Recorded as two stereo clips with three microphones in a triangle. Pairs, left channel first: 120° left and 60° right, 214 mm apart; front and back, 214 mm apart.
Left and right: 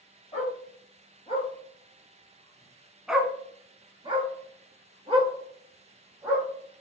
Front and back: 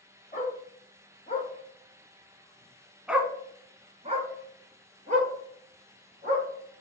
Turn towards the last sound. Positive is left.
turn(degrees=-125)